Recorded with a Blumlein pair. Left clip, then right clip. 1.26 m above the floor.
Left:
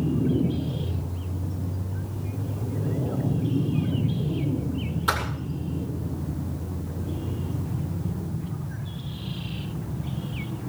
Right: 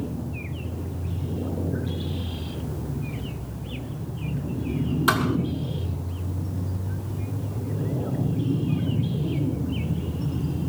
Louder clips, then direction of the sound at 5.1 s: Right 3 dB; 70° right.